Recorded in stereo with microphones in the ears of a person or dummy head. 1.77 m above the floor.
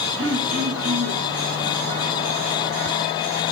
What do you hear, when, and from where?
0.2 s throat clearing: 85° right, 5.5 m